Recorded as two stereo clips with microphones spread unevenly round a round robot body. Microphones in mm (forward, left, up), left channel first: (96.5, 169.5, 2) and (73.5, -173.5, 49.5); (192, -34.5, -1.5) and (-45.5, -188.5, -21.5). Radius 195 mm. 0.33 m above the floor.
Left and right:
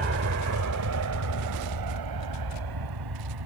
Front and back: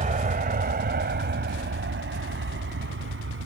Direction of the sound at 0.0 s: 110° right.